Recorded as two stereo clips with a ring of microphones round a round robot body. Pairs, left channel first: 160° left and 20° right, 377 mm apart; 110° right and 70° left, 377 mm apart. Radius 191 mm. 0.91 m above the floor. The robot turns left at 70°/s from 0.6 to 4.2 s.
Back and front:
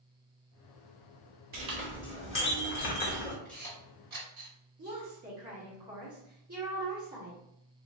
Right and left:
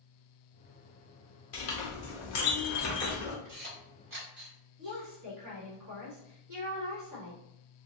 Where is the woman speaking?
30° left, 1.6 m.